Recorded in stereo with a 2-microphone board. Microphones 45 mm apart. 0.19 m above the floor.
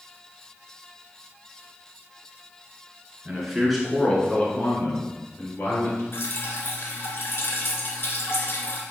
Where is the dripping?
55° left (ahead or behind), 1.7 m.